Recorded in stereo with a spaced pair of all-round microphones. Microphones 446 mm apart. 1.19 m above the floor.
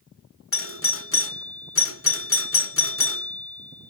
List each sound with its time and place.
0.5 s a doorbell: 30° left (ahead or behind), 0.6 m